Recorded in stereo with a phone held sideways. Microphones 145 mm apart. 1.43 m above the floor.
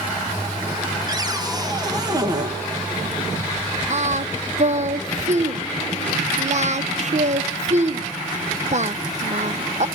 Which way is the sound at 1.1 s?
25° right (ahead or behind).